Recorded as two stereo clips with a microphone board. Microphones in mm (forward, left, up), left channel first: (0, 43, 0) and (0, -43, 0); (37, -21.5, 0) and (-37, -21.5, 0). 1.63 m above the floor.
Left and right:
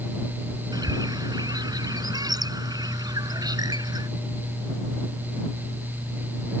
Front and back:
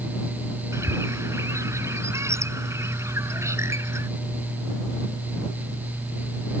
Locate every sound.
0.7 s a bird: 130° right